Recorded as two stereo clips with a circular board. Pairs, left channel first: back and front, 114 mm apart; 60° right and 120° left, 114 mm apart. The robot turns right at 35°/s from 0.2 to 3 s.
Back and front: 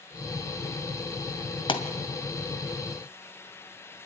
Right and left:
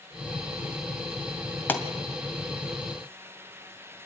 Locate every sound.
1.7 s a pop: 135° right, 1.8 m; by 1.8 s 130° right, 1.8 m